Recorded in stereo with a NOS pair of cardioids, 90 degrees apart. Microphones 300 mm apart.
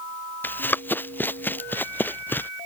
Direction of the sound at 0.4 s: 5° left.